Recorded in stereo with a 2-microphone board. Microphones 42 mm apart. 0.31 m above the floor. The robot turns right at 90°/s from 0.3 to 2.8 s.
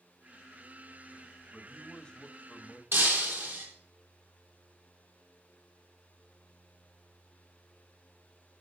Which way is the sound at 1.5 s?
Straight ahead.